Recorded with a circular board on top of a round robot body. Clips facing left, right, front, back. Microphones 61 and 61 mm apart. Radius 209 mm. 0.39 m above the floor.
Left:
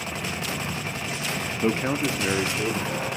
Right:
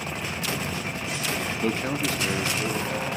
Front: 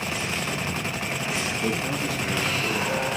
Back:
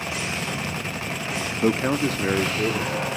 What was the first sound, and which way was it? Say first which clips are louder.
A man speaking: left 4 dB, back 10 dB; 155° left.